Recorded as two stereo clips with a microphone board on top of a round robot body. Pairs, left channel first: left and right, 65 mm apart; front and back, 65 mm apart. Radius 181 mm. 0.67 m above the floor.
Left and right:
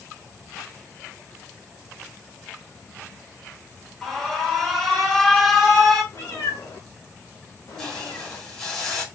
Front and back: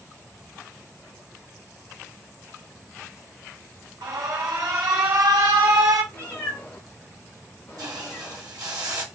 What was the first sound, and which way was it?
An alarm, 170° left.